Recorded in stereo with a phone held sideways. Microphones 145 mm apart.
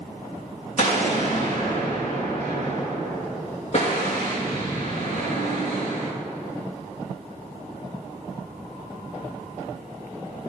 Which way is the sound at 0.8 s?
50° left (ahead or behind).